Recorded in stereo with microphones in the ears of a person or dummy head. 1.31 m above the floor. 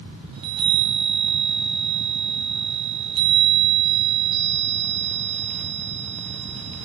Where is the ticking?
I don't hear ticking.